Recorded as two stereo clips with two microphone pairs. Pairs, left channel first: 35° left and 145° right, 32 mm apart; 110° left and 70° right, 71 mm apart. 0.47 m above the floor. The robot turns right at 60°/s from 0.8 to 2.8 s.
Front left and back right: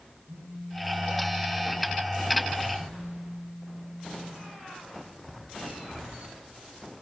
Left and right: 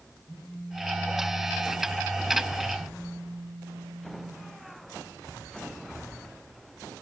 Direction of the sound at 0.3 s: 160° right.